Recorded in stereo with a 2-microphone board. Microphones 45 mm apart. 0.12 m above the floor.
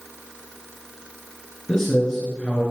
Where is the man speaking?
15° left (ahead or behind), 1.7 m.